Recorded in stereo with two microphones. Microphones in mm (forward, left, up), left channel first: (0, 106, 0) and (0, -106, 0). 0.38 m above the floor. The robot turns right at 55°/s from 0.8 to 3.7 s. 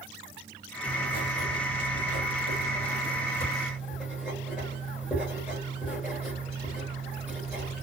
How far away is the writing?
About 3 m.